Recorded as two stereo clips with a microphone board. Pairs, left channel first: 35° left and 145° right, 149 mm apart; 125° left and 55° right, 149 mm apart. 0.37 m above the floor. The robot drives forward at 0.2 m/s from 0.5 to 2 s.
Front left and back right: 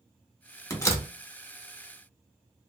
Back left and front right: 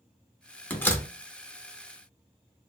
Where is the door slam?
60° left, 0.7 m; by 1.1 s 80° left, 0.6 m.